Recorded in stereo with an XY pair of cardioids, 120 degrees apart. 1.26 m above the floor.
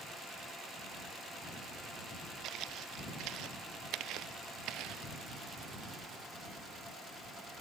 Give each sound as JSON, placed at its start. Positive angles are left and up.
{"t": 2.4, "sound": "footsteps", "azimuth_deg": -65}